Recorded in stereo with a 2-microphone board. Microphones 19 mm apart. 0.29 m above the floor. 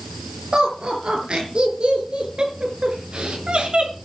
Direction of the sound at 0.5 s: 60° right (ahead or behind).